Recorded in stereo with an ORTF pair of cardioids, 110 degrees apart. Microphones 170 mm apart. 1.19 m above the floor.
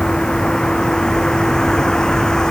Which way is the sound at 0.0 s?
5° left.